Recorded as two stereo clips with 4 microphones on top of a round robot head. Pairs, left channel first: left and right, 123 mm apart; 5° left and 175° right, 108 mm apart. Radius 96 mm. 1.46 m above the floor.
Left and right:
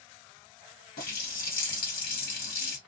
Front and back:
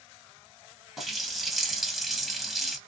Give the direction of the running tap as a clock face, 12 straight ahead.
9 o'clock.